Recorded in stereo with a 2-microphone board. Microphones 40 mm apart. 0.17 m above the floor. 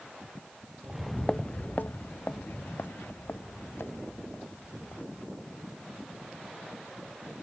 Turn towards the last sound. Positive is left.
turn(degrees=80)